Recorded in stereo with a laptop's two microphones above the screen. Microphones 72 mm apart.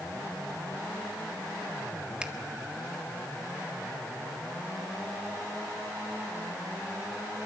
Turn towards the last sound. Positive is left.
turn(degrees=-15)  # may be behind; listen again after turning